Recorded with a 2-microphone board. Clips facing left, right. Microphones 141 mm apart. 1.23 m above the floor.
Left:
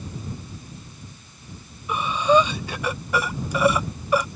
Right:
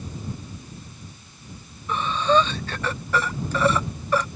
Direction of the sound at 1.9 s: 10° left (ahead or behind).